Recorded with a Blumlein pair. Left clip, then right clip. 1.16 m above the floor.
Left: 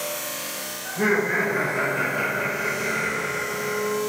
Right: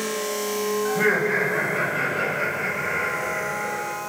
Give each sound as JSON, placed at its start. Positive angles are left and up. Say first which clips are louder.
{"t": 0.8, "sound": "laughter", "louder": "even", "azimuth_deg": -25, "distance_m": 1.6}